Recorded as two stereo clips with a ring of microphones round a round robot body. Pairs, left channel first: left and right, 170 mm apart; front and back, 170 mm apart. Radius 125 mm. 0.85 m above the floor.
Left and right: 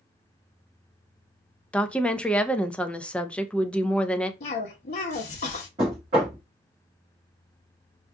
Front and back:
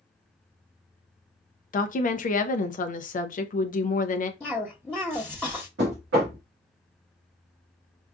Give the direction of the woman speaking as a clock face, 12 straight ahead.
12 o'clock.